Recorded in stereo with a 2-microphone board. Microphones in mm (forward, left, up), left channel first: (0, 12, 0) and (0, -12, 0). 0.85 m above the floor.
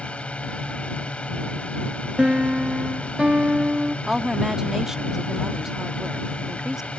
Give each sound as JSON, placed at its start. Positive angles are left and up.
{"t": 0.0, "sound": "a drone", "side_deg": 60}
{"t": 2.2, "sound": "a piano", "side_deg": -45}
{"t": 4.1, "sound": "a woman speaking", "side_deg": -20}